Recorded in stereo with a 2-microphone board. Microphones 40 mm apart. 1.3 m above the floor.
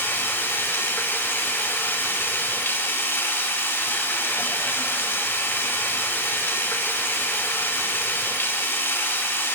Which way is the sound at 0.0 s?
85° left.